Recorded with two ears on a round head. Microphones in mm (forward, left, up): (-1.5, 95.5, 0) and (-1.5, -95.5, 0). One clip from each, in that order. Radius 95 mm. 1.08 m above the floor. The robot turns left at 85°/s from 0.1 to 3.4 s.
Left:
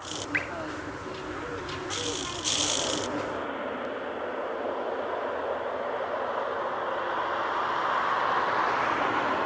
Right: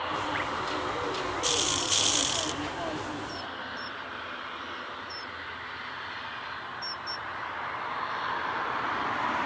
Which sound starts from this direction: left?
Dripping, at 0.3 s.